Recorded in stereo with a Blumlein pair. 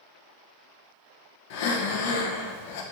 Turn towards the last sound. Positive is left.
turn(degrees=50)